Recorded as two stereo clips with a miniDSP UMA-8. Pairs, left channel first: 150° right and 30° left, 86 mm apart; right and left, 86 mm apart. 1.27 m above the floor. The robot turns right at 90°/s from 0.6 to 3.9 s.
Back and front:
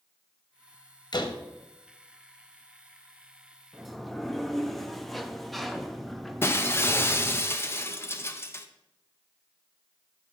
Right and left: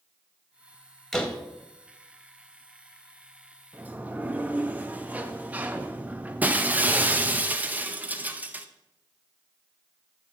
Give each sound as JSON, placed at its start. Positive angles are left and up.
{"t": 1.1, "sound": "a door slam", "azimuth_deg": -175, "distance_m": 0.9}
{"t": 3.7, "sound": "a sliding door", "azimuth_deg": 110, "distance_m": 0.5}
{"t": 6.4, "sound": "breaking glass", "azimuth_deg": 155, "distance_m": 0.5}